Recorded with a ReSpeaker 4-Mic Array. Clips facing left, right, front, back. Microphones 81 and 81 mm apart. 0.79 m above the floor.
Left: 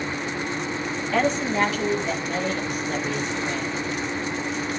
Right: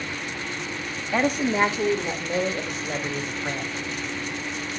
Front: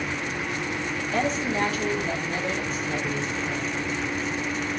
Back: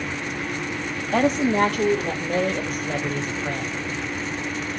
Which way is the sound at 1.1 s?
170° right.